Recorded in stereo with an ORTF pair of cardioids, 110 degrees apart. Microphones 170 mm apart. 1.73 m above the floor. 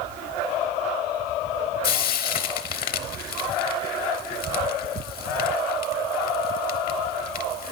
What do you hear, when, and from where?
1.8 s frying: 60° left, 0.7 m